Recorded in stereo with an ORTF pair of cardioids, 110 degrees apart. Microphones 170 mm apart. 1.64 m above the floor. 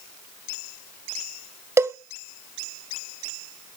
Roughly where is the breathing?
No breathing in this recording.